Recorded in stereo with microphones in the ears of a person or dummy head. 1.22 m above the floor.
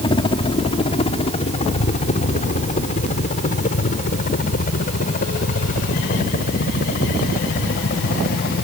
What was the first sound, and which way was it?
A helicopter, 25° left (ahead or behind).